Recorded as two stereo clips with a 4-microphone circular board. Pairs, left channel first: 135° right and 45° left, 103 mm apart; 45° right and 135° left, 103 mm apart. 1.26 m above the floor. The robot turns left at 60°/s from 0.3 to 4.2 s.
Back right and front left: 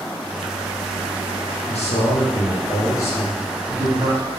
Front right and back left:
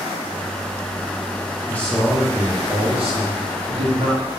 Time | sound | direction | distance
1.7 | a man speaking | 115° right | 0.7 m